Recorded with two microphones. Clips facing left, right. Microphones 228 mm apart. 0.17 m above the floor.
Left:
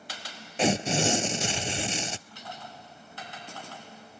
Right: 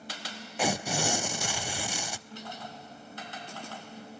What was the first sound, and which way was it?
Tearing paper, 25° left (ahead or behind).